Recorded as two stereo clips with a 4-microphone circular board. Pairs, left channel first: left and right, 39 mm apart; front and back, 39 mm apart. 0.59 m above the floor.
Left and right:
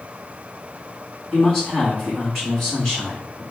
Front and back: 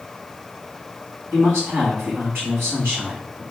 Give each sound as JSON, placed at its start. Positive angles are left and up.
{"t": 1.3, "sound": "a man speaking", "azimuth_deg": 165, "distance_m": 5.0}